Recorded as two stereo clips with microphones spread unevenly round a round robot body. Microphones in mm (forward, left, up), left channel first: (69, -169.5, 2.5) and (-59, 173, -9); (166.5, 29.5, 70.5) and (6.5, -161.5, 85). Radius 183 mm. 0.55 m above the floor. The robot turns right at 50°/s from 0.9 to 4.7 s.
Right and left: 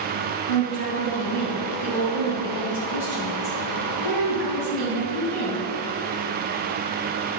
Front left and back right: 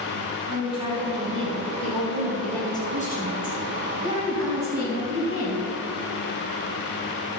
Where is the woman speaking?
115° right, 4 m; by 5.7 s 75° left, 4 m.